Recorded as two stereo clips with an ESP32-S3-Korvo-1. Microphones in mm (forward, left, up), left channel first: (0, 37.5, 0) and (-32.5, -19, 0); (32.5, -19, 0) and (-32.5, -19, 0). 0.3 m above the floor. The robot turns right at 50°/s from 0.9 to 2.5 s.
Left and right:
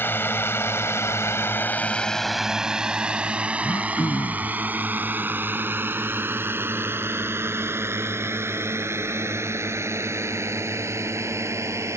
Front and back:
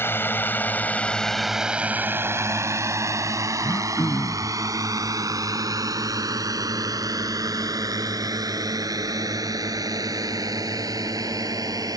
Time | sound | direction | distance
0.0 | a drone | 25° left | ?
3.6 | throat clearing | 40° left | ?